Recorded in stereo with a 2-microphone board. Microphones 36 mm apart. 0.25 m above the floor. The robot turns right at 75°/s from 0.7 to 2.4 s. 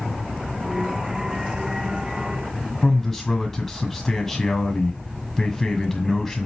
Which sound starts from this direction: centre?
A man speaking, at 2.8 s.